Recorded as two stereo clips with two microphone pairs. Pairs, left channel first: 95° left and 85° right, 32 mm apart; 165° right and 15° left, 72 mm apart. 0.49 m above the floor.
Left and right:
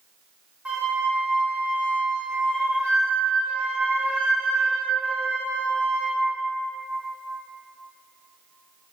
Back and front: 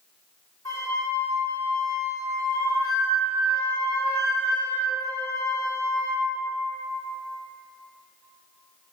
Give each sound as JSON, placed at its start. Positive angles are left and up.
{"t": 0.7, "sound": "a flute", "azimuth_deg": -135, "distance_m": 0.7}